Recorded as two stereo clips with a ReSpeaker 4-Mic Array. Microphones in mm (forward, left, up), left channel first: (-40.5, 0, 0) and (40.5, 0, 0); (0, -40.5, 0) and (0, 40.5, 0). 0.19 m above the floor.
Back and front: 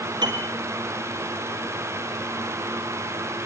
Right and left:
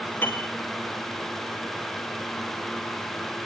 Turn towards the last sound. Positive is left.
turn(degrees=-25)